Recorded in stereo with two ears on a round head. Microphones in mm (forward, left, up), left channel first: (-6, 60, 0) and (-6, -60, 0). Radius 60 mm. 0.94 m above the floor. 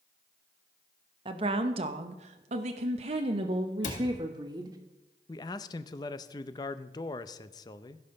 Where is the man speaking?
30° left (ahead or behind), 0.6 m.